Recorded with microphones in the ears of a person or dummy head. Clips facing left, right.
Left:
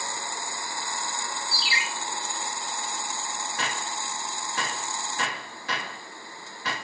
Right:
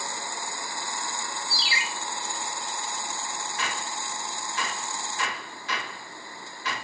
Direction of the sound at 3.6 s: 50° left (ahead or behind).